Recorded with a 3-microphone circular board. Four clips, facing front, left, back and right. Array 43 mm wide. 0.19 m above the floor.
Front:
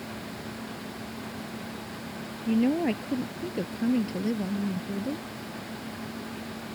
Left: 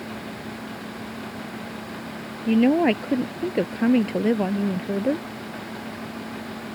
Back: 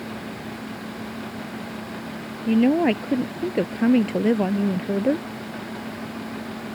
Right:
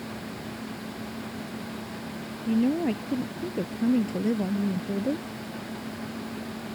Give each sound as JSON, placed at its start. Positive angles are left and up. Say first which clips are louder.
{"t": 2.5, "sound": "a woman speaking", "louder": "left 6 dB, back 6 dB", "azimuth_deg": 115}